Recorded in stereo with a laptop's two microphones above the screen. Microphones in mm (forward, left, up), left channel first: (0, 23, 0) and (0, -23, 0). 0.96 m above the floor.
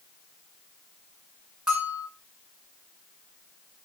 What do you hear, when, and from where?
1.7 s a bell: 15° right (ahead or behind), 4.5 m